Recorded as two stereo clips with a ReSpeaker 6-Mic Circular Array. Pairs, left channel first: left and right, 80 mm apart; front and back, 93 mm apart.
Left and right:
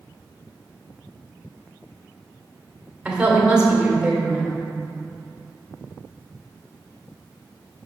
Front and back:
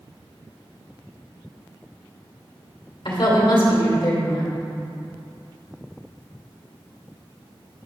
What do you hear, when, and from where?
3.0 s a woman speaking: 15° right, 2 m